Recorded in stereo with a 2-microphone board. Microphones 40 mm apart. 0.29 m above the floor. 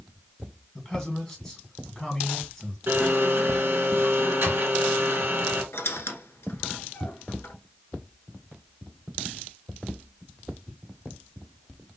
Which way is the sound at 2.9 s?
65° right (ahead or behind).